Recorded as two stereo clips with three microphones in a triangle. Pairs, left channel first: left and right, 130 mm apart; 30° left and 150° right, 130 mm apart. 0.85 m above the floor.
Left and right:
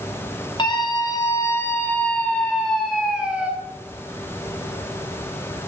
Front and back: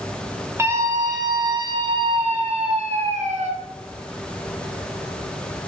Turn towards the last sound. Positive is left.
turn(degrees=-170)